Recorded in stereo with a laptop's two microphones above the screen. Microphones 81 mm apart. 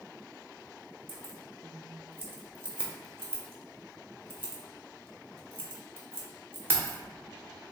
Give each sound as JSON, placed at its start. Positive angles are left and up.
{"t": 1.1, "sound": "keys jangling", "side_deg": -25, "distance_m": 0.6}